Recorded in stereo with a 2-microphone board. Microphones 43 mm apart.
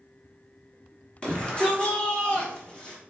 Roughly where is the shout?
Left.